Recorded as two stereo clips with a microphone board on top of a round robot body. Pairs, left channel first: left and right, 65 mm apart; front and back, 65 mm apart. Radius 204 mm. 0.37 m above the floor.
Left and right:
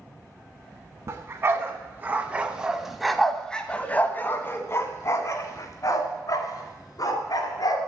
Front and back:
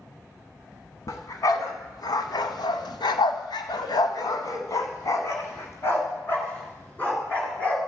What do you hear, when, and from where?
1.1 s a dog barking: 40° right, 1.5 m; by 7.8 s 70° left, 2.5 m